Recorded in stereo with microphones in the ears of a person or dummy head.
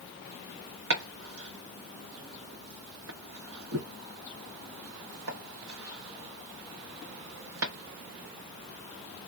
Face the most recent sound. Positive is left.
turn(degrees=-70)  # may be behind; listen again after turning